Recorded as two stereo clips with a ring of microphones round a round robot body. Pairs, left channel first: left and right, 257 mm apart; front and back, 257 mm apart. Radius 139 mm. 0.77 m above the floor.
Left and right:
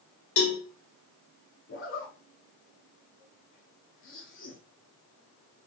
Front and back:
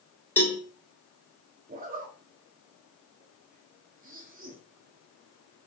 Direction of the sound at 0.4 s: 80° left.